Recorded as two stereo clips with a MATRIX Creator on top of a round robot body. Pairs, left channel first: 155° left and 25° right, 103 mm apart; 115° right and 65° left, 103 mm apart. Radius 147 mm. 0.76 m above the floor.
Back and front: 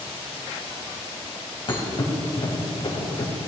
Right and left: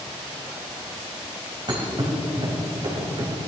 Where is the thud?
115° left, 2.5 m.